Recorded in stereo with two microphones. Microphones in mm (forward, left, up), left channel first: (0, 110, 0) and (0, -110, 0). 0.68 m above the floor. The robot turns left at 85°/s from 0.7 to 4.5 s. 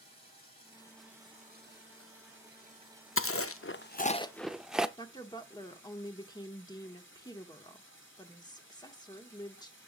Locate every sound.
0.0 s running water: 30° left, 4.5 m; by 9.9 s 65° left, 4.5 m
3.2 s chewing: 70° left (ahead or behind), 0.5 m; by 4.9 s 5° right (ahead or behind), 0.5 m
5.0 s a woman speaking: 20° left (ahead or behind), 1.3 m